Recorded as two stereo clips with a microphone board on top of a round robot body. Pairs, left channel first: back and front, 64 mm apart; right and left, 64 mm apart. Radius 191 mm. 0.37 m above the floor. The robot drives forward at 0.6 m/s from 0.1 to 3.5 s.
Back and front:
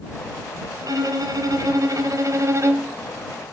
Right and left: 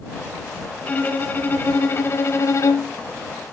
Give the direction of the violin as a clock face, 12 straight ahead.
1 o'clock.